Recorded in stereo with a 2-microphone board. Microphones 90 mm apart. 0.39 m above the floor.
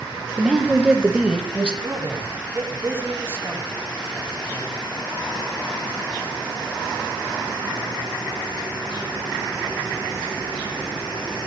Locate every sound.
0.4 s a woman speaking: 10° right (ahead or behind), 1.3 m; by 1.7 s 15° right (ahead or behind), 2.5 m
1.8 s a man speaking: 30° right (ahead or behind), 3.5 m